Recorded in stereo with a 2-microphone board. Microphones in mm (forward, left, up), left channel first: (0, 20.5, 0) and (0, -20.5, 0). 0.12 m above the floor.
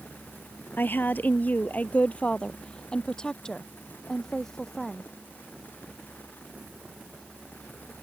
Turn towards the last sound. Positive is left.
turn(degrees=5)  # may be behind; listen again after turning